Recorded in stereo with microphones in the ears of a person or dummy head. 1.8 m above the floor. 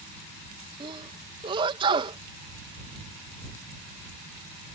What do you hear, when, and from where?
0.8 s a sneeze: 25° right (ahead or behind)